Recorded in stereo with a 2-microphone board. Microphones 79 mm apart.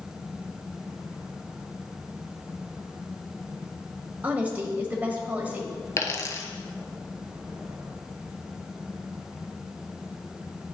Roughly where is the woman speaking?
Right.